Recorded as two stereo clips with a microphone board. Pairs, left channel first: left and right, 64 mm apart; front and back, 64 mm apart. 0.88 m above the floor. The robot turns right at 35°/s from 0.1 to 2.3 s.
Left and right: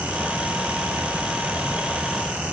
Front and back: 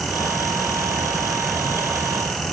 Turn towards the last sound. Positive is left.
No sound to turn to.